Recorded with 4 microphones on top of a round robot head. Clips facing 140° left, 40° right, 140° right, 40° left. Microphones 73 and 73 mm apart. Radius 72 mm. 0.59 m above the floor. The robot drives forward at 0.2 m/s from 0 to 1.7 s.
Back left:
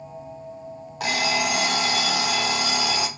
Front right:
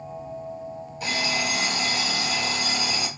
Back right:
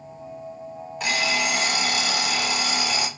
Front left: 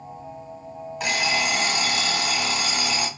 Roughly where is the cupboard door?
No cupboard door in this recording.